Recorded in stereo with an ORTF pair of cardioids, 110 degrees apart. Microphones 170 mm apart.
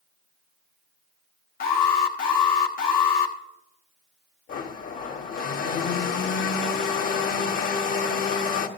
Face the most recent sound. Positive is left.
turn(degrees=50)